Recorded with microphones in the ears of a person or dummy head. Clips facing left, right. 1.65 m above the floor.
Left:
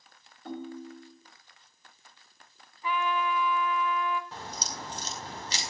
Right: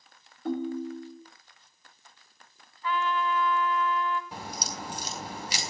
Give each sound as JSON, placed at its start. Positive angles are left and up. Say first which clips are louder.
{"t": 0.5, "sound": "a ringtone", "louder": "right 8 dB", "side_deg": -65, "distance_m": 2.5}
{"t": 2.8, "sound": "a trumpet", "louder": "right 1 dB", "side_deg": 20, "distance_m": 2.5}
{"t": 4.3, "sound": "a crack", "louder": "right 2 dB", "side_deg": -15, "distance_m": 5.0}